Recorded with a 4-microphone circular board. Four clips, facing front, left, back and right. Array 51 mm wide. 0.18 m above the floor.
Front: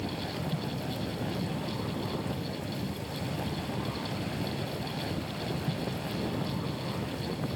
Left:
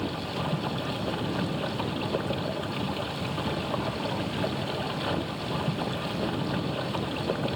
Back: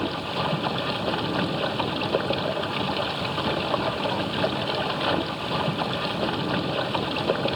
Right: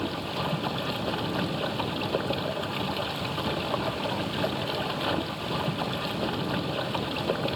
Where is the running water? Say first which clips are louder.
Right 1 dB, back 8 dB; 170° right.